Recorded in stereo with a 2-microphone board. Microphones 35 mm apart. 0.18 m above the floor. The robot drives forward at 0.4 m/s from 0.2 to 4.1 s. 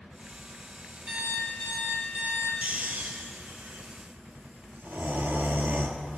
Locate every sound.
1.1 s an alarm clock: 60° right (ahead or behind), 2.5 m; by 2.5 s 70° right (ahead or behind), 2.5 m
2.6 s snoring: 50° right (ahead or behind), 0.6 m; by 6.2 s 70° right (ahead or behind), 0.5 m